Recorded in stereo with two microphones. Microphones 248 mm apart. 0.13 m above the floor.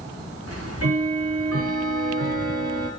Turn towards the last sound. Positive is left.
turn(degrees=-70)  # may be behind; listen again after turning